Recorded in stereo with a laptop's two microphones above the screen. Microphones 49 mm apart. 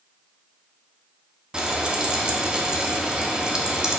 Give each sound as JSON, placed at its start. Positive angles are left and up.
{"t": 1.5, "sound": "frying", "side_deg": -15, "distance_m": 0.5}